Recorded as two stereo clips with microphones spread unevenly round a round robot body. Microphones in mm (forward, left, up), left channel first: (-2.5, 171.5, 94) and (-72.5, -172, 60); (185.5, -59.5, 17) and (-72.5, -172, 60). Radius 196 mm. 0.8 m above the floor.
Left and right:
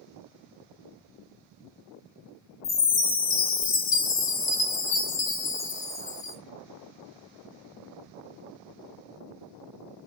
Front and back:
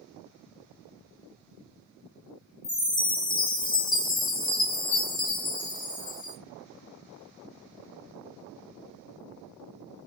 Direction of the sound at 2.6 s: 35° left.